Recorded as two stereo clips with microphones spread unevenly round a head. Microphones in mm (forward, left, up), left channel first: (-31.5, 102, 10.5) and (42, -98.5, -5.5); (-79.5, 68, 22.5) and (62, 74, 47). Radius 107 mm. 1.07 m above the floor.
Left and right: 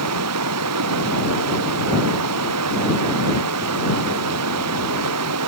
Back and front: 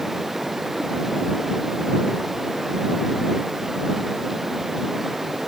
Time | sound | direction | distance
0.0 | running water | 85° right | ?